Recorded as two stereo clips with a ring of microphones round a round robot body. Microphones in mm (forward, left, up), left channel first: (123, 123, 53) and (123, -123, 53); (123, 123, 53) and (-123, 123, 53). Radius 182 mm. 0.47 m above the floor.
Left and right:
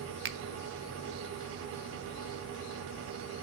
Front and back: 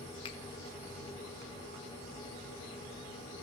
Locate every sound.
0.2 s a finger snap: 70° right, 0.8 m